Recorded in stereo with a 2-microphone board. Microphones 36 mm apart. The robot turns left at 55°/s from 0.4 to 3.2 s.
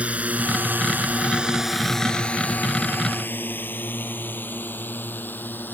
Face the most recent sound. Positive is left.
turn(degrees=65)  # may be behind; listen again after turning